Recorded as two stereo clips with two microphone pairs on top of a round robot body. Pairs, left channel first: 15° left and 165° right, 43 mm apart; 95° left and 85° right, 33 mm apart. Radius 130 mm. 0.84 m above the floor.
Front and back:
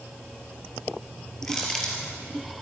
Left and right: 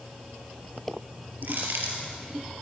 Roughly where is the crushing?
Ahead right.